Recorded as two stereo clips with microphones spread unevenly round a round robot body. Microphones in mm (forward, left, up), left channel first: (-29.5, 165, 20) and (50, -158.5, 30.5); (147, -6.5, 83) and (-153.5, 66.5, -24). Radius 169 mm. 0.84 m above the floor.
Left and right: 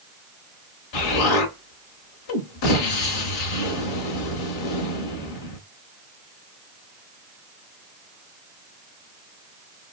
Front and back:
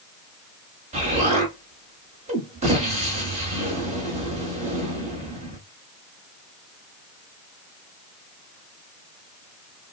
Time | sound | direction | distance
0.9 | an explosion | 90° left | 1.2 m